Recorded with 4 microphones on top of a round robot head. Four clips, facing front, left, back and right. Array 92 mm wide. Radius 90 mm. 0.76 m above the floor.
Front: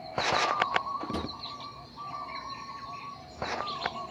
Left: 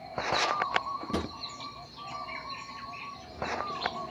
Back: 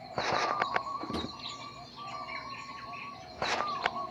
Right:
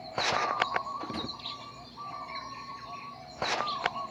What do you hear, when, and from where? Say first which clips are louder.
1.1 s a drawer: left 4 dB, front 2 dB; 85° left, 0.7 m